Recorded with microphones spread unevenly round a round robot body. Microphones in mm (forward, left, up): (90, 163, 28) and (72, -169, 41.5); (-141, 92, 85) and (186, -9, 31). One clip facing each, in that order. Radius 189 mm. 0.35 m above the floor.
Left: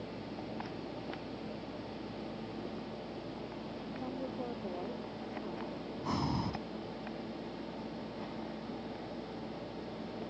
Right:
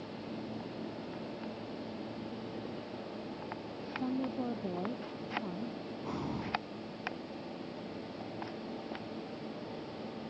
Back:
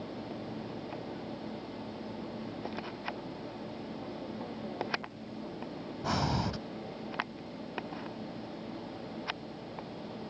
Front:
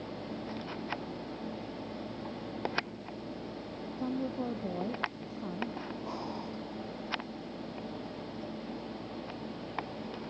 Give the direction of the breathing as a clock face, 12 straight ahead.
7 o'clock.